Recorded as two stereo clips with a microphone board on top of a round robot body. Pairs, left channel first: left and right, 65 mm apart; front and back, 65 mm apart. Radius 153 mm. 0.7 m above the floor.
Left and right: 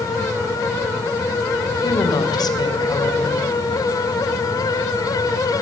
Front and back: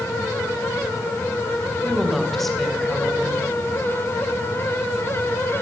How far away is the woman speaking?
About 3.5 m.